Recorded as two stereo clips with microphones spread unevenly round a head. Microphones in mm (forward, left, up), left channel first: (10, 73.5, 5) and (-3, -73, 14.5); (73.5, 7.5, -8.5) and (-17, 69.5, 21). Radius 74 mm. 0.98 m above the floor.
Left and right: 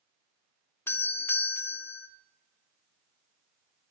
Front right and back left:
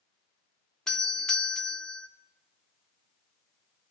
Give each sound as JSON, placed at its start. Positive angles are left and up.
{"t": 0.9, "sound": "a doorbell", "azimuth_deg": 25, "distance_m": 0.7}